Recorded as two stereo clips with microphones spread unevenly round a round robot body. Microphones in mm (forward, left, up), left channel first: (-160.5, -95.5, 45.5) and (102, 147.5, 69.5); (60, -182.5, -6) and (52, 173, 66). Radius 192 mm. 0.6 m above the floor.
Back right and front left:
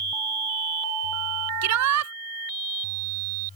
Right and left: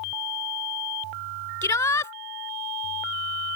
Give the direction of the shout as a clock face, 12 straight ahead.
12 o'clock.